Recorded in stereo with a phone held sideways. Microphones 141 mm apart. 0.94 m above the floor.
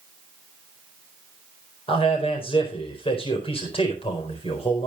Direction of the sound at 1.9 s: 40° left (ahead or behind).